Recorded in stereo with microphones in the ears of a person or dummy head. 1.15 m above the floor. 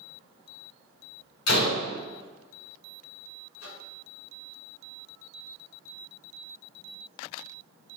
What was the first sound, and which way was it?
A door slam, 85° left.